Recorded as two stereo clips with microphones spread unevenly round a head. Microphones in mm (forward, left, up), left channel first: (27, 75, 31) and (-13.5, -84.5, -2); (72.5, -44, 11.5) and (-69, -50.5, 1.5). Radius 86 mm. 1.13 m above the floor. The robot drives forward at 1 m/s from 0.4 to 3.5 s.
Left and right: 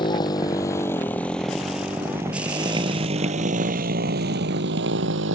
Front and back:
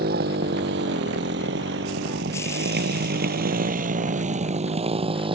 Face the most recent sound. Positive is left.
turn(degrees=-120)